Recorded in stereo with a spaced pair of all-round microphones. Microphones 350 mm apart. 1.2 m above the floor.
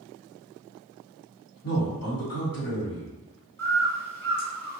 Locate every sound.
1.6 s a man speaking: 75° left (ahead or behind), 1.8 m
3.6 s a bird: 5° left (ahead or behind), 1.3 m